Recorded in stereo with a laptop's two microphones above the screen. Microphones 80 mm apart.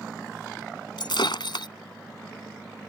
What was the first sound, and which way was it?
Breaking glass, 70° left (ahead or behind).